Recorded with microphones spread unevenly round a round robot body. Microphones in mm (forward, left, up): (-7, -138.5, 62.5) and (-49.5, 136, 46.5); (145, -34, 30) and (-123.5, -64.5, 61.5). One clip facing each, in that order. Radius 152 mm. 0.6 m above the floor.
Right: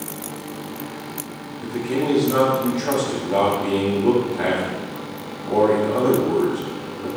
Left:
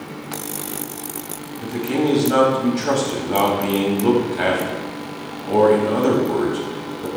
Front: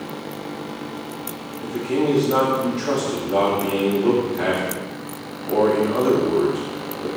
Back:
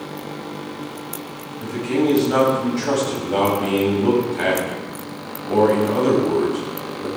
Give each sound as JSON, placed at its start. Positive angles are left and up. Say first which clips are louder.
{"t": 1.6, "sound": "a man speaking", "louder": "left 2 dB, back 2 dB", "azimuth_deg": 135, "distance_m": 4.0}